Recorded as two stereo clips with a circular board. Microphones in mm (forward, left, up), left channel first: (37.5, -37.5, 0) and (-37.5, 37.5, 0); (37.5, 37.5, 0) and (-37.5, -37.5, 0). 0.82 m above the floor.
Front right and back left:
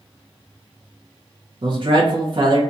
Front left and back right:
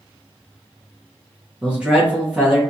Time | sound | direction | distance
1.6 | a man speaking | 150° left | 0.9 m